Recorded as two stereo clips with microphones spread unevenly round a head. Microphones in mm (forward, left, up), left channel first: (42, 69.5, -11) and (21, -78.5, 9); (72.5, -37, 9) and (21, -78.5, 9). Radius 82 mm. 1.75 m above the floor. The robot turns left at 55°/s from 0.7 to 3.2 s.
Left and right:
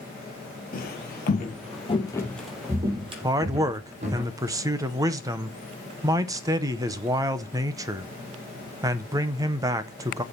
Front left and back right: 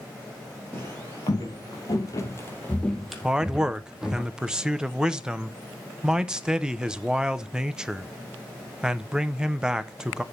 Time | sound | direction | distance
0.7 | footsteps | 105° left | 2.5 m
3.2 | a man speaking | 70° right | 0.7 m